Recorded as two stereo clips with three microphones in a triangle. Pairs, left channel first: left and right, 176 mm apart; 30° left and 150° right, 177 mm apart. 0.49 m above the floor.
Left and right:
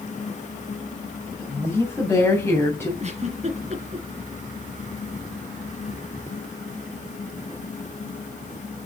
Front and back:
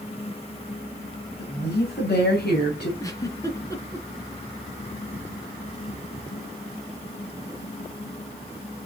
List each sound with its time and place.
1.4 s a woman speaking: 10° left, 3 m; by 2.9 s 15° left, 2.5 m
3.0 s a giggle: 40° right, 1.8 m